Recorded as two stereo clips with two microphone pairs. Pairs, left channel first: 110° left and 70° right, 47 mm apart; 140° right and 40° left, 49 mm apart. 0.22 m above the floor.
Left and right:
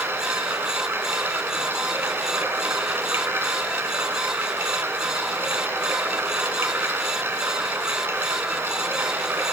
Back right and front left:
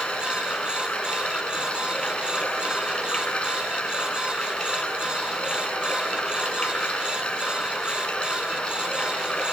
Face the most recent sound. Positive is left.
turn(degrees=-75)